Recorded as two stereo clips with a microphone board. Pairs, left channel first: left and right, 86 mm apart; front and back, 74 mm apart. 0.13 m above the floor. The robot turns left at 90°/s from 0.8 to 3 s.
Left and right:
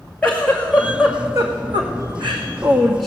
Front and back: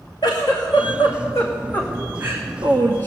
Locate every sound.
0.2 s a giggle: 15° left, 2.5 m; by 3.1 s straight behind, 2.5 m